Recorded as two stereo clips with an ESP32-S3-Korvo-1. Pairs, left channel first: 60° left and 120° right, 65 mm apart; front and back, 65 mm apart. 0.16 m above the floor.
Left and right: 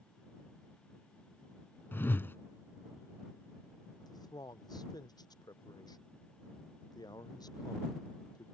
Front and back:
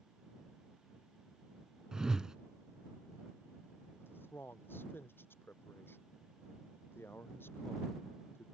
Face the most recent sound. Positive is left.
turn(degrees=55)